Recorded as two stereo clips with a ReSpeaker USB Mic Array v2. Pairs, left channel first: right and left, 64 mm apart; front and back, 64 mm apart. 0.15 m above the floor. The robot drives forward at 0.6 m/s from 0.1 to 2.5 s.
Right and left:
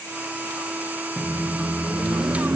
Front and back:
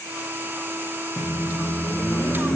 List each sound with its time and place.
1.2 s a microwave: 25° left, 1.8 m; by 2.5 s 50° left, 1.2 m